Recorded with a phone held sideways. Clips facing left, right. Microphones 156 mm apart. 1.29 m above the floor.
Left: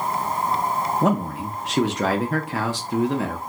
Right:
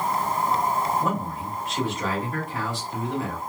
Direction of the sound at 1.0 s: 80° left.